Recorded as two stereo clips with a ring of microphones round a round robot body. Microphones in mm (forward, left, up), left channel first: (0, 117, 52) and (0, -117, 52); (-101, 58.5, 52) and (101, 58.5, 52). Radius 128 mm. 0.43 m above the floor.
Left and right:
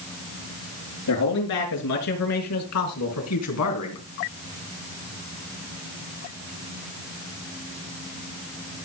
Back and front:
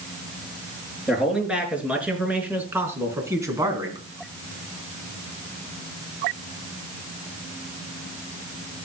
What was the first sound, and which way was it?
A man speaking, 85° left.